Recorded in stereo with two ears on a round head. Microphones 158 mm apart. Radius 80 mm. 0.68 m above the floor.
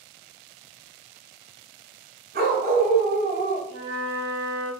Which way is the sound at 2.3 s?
60° right (ahead or behind).